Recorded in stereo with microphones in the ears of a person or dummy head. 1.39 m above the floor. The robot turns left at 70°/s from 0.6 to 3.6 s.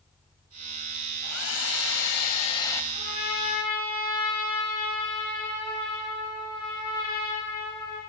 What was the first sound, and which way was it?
A hair dryer, 125° left.